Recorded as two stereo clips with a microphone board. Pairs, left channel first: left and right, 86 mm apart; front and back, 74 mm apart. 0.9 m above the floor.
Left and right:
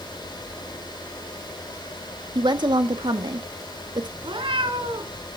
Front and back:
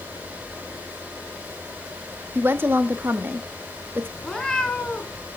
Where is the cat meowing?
80° right, 1.8 m.